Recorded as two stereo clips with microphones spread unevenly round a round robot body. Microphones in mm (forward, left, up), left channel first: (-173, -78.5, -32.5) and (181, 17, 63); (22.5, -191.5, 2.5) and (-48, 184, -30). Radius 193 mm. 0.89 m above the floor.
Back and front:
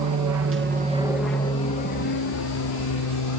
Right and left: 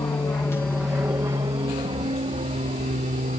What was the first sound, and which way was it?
An aircraft, straight ahead.